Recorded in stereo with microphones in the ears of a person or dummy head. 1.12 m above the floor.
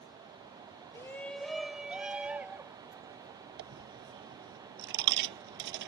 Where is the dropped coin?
65° right (ahead or behind).